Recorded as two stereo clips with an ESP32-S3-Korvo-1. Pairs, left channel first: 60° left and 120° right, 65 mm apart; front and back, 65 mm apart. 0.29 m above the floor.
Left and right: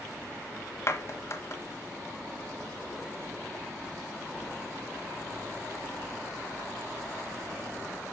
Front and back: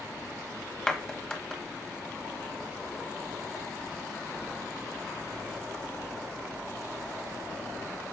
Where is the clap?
75° left, 1.4 m.